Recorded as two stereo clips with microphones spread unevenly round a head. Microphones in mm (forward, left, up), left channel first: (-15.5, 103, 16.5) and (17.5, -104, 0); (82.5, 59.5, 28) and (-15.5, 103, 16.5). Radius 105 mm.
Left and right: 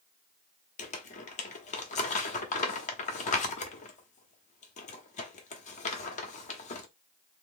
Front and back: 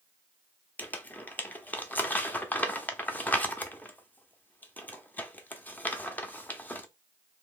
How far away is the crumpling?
About 0.7 m.